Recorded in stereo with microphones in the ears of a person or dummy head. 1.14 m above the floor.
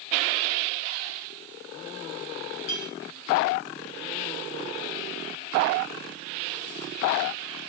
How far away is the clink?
About 3.5 m.